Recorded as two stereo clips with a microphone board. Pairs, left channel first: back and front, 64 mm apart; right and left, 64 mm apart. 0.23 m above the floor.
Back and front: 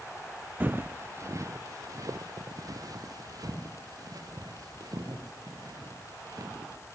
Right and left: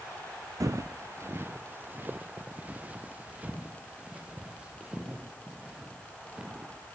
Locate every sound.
0.6 s footsteps: 60° left, 0.7 m; by 6.7 s 15° left, 6 m